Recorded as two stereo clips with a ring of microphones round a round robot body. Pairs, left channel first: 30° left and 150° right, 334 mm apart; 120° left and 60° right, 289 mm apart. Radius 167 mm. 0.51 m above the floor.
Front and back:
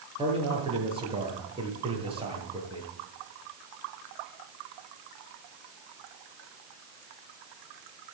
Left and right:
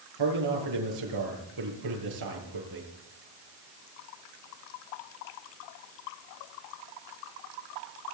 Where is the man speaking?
75° right, 8 m.